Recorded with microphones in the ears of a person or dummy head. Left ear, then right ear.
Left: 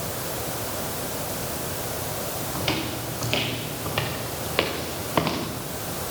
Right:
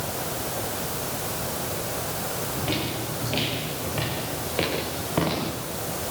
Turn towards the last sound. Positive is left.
turn(degrees=50)  # may be behind; listen again after turning